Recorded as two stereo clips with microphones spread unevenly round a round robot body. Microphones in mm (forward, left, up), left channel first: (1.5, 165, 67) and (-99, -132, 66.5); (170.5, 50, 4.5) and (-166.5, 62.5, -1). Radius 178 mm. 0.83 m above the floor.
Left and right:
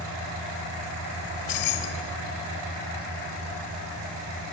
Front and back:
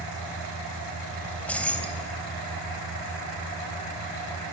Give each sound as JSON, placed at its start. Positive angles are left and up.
{"t": 1.2, "sound": "keys jangling", "azimuth_deg": 85, "distance_m": 3.0}